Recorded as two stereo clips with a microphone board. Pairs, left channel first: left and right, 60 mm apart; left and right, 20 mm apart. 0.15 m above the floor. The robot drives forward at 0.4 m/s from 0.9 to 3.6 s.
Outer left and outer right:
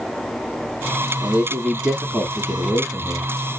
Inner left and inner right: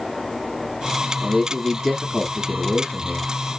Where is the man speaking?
20° right (ahead or behind), 1.2 m.